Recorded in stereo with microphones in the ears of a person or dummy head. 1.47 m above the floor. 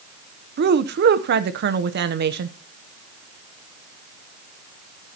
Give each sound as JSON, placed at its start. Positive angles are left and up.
{"t": 0.6, "sound": "a woman speaking", "side_deg": -55, "distance_m": 0.9}